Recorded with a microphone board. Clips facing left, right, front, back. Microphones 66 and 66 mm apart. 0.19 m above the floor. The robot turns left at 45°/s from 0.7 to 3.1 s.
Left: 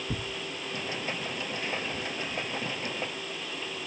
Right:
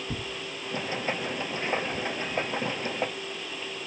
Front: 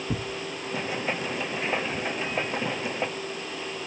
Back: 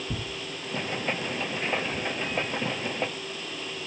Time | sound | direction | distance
0.1 | tearing paper | 5° left | 0.7 m